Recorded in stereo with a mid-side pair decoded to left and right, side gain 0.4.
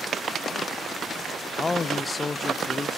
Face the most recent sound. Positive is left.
turn(degrees=40)